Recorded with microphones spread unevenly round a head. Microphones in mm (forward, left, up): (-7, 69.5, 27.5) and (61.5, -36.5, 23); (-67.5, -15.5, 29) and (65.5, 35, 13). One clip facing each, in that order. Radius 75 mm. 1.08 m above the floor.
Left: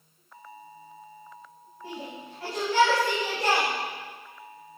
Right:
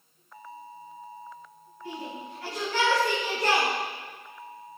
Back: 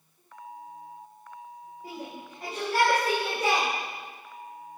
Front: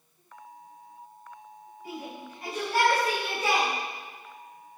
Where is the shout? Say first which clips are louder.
Right 1 dB, front 1 dB; 155° left, 4.5 m; by 3.7 s 170° left, 4.5 m.